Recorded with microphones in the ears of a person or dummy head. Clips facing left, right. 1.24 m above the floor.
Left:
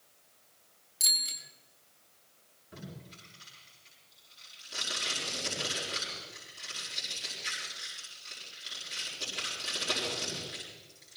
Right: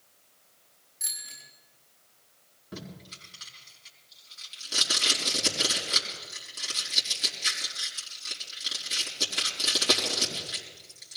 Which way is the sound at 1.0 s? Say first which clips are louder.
Left 6 dB; 45° left (ahead or behind).